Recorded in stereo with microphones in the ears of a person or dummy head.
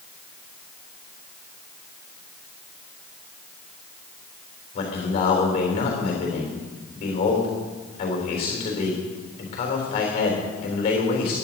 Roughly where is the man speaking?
Left.